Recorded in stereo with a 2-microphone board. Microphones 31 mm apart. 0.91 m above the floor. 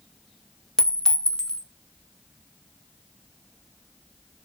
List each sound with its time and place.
0.8 s a clink: 20° left (ahead or behind), 0.6 m